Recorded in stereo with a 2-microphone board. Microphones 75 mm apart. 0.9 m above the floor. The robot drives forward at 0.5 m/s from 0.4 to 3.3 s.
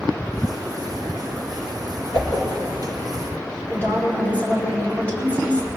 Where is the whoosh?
75° left (ahead or behind), 3 m.